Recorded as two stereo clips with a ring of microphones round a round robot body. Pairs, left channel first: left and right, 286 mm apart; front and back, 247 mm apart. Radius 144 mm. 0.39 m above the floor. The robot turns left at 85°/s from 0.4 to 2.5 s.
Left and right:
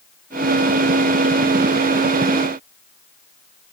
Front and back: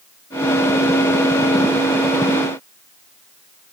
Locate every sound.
Only background noise.